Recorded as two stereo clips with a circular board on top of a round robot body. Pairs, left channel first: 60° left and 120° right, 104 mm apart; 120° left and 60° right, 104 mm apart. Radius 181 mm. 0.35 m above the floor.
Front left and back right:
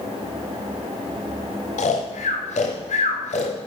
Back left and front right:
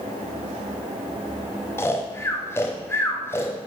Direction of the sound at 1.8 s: 50° left.